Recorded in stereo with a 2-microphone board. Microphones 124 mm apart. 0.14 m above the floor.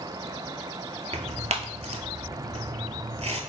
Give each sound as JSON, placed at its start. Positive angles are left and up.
{"t": 1.1, "sound": "tearing paper", "side_deg": -60, "distance_m": 0.6}